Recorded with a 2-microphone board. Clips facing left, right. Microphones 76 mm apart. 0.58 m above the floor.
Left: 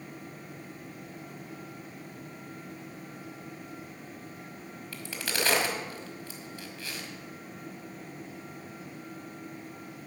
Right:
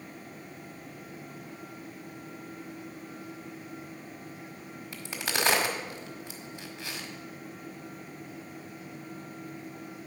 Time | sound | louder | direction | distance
4.9 | a crack | right 1 dB | 20° right (ahead or behind) | 1.7 m